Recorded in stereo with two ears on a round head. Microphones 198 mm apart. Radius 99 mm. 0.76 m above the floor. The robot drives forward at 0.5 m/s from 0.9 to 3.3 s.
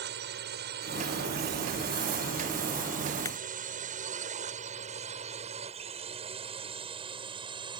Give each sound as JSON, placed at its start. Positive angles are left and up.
{"t": 0.0, "sound": "a drone", "side_deg": -50}
{"t": 3.2, "sound": "breaking glass", "side_deg": 15}